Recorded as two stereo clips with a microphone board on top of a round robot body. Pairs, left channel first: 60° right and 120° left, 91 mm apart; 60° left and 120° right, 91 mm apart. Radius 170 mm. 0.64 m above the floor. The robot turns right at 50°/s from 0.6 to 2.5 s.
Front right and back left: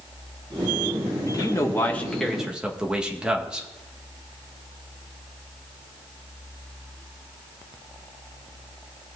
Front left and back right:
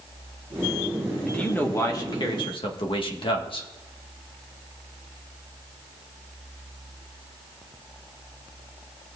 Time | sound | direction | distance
1.3 | a man speaking | 20° right | 1.6 m